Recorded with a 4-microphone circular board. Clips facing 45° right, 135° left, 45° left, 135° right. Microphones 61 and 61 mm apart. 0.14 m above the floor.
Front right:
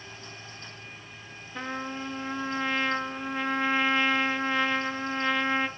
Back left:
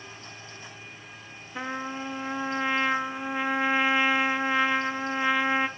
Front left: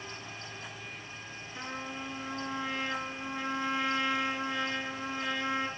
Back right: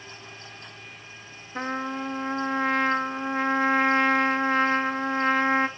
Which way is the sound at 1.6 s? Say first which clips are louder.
Back left 1 dB, back right 11 dB; 150° right.